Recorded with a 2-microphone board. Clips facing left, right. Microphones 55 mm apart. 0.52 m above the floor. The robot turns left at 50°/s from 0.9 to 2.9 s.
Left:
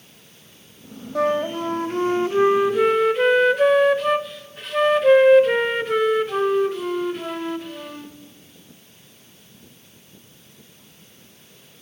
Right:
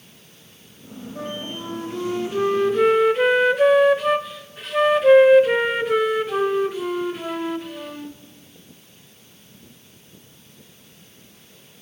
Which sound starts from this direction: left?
A flute, at 1.1 s.